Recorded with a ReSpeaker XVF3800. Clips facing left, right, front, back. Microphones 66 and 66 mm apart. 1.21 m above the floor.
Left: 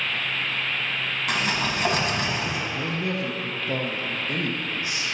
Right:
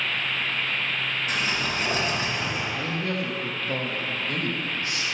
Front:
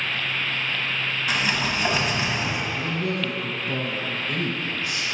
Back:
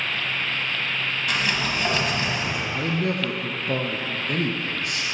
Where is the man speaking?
160° left, 0.7 m.